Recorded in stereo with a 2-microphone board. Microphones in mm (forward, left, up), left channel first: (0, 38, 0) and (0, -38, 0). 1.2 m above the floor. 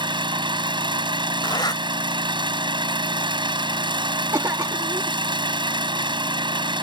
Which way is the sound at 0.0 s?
80° right.